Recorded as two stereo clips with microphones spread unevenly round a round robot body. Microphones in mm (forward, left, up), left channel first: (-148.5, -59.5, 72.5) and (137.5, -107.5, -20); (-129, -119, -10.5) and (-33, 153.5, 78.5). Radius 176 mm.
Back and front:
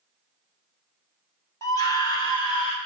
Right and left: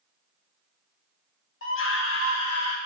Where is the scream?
100° right, 2.0 m; by 2.8 s 110° right, 2.5 m.